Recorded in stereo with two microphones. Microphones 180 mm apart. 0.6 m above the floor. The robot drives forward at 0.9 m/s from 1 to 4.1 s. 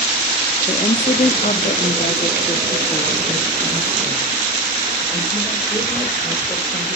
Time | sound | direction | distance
0.7 | a woman speaking | 40° left (ahead or behind) | 0.9 m